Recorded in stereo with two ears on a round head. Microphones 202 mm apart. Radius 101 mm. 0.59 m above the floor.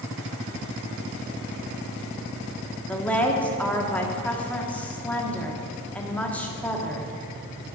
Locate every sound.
2.9 s a woman speaking: 5° left (ahead or behind), 1.0 m